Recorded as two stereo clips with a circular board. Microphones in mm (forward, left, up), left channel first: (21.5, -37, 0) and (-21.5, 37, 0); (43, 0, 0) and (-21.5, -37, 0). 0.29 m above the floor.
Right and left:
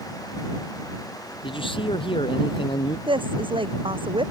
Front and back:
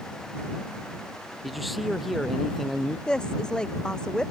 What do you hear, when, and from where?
1.4 s a man speaking: 60° right
3.1 s a woman speaking: 110° left